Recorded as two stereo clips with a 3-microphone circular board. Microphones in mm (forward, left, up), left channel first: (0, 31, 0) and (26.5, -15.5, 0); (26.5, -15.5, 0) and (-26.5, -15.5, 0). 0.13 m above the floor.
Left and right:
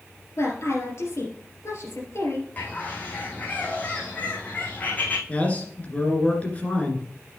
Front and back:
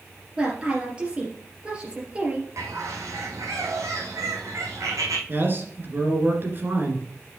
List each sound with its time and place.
0.4 s a woman speaking: 115° left, 3 m
2.6 s a bird: straight behind, 1.8 m
5.3 s a man speaking: 165° left, 2 m